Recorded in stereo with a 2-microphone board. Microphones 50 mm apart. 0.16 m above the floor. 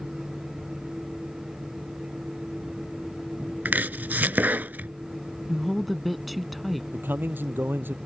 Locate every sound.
3.6 s chopping: 40° right (ahead or behind)
5.5 s a woman speaking: centre (ahead or behind)
6.9 s a man speaking: 45° right (ahead or behind)